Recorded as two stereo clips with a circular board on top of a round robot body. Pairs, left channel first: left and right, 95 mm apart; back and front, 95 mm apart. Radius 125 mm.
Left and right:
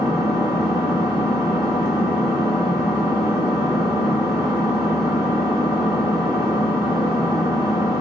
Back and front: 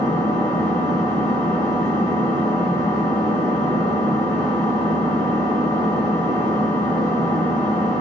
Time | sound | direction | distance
0.0 | an engine running | 175° left | 2.0 m